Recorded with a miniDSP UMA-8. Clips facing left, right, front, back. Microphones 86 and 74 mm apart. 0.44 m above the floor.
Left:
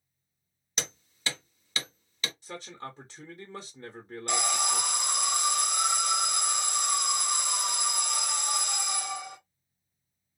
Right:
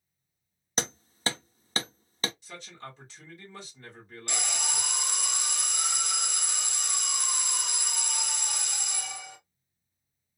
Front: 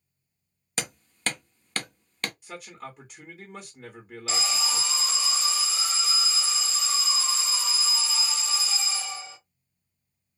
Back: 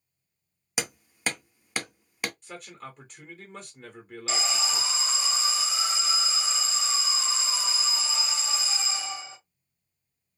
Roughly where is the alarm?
Behind left.